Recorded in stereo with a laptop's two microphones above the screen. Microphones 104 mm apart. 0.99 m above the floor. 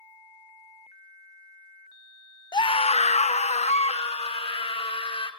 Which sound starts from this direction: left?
A scream, at 2.5 s.